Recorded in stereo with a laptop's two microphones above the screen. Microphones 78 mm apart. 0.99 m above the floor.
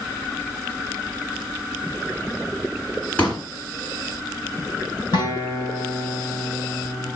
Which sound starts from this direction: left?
A guitar, at 5.1 s.